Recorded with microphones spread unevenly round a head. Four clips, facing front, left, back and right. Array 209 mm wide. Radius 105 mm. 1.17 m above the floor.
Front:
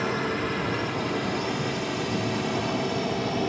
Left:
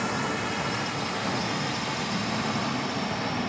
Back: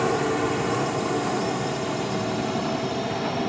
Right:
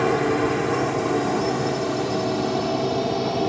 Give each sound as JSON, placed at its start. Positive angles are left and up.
{"t": 0.0, "sound": "a drone", "azimuth_deg": -110}